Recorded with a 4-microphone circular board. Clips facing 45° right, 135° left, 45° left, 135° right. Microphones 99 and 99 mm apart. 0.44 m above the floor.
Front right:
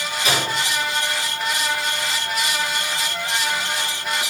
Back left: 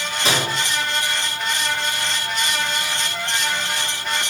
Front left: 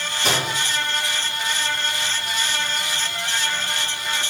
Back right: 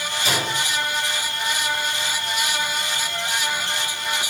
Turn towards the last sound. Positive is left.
turn(degrees=80)